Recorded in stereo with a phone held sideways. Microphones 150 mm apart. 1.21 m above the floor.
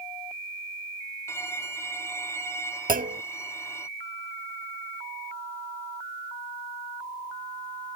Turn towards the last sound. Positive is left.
turn(degrees=-60)  # may be behind; listen again after turning